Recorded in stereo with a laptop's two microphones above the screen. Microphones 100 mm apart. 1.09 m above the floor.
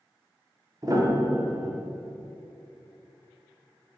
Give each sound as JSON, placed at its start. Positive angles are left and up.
{"t": 0.8, "sound": "a piano", "side_deg": -35, "distance_m": 0.6}